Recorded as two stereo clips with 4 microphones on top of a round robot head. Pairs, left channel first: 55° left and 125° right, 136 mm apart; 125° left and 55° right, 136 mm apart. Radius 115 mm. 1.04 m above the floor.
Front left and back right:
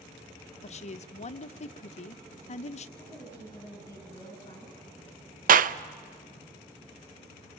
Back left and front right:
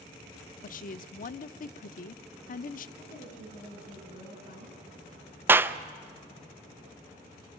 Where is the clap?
130° right, 0.5 m.